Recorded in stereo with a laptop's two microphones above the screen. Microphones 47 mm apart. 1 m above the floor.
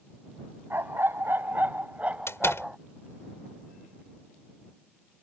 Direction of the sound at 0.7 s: 65° right (ahead or behind).